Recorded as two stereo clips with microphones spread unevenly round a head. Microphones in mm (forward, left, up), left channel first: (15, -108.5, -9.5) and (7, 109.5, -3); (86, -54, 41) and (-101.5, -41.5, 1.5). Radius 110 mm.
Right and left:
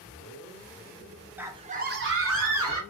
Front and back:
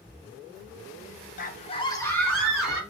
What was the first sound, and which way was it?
A scream, 10° left.